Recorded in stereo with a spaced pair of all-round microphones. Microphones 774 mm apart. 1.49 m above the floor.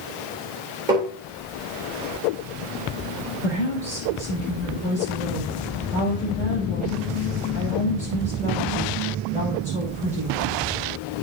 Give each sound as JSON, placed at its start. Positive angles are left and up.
{"t": 0.9, "sound": "tapping", "side_deg": -85, "distance_m": 4.0}
{"t": 3.4, "sound": "a woman speaking", "side_deg": -80, "distance_m": 5.0}